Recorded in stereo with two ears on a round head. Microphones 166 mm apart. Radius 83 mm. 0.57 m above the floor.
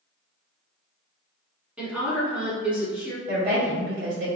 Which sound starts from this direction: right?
A woman speaking, at 3.3 s.